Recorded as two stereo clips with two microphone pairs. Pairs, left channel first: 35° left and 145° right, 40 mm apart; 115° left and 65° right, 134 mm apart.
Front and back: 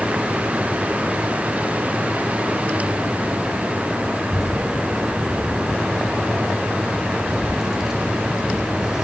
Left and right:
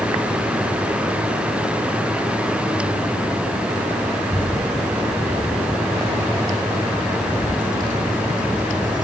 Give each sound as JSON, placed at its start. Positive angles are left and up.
{"t": 4.2, "sound": "a child speaking", "azimuth_deg": -65, "distance_m": 5.0}